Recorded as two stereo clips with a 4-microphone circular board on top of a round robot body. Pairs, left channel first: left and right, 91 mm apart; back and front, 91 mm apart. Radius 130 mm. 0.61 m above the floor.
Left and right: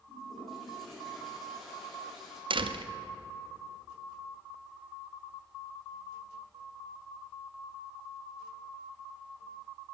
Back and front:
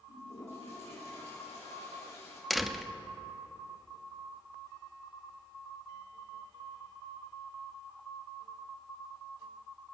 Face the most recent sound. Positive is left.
turn(degrees=-90)